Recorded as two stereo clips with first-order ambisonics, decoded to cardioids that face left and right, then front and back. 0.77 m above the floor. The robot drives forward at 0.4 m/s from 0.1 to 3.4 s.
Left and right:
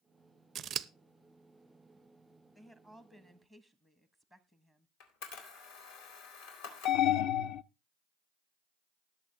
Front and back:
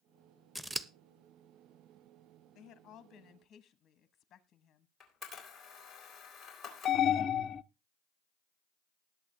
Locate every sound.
0.6 s scissors: 95° right, 0.5 m; by 0.9 s 125° right, 0.5 m
2.5 s a woman speaking: 10° left, 1.2 m; by 4.9 s 15° left, 0.9 m
5.0 s a camera shutter: 80° left, 4 m
6.8 s an alarm: 65° left, 0.5 m